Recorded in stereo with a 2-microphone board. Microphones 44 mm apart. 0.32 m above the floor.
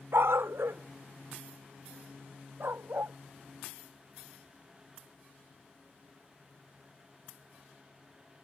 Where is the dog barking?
75° right (ahead or behind); by 3.2 s 60° right (ahead or behind).